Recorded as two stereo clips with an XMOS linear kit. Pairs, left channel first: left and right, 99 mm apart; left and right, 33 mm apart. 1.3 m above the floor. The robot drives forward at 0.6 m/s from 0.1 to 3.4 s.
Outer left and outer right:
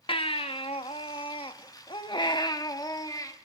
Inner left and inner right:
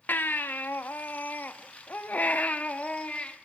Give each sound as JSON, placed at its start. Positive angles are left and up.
{"t": 0.1, "sound": "a baby crying", "side_deg": 65, "distance_m": 1.3}